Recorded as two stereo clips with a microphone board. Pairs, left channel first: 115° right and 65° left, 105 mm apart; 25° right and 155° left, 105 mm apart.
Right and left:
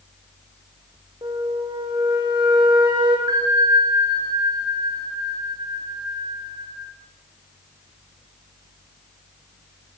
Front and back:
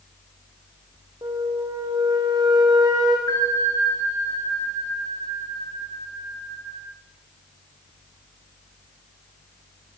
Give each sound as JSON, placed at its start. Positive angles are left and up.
{"t": 1.2, "sound": "a flute", "azimuth_deg": 110, "distance_m": 5.0}
{"t": 3.3, "sound": "a bell", "azimuth_deg": 25, "distance_m": 7.0}